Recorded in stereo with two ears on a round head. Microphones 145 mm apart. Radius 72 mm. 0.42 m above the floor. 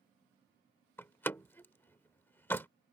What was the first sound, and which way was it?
A door slam, 15° left (ahead or behind).